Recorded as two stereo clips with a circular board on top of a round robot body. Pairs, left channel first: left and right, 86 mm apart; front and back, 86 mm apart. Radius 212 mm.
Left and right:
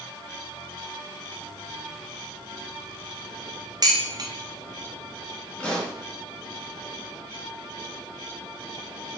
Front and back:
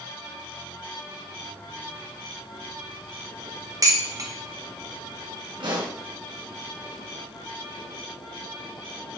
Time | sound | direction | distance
3.8 | dishes clattering | 130° right | 1.4 m
5.6 | a pop | 170° left | 4.5 m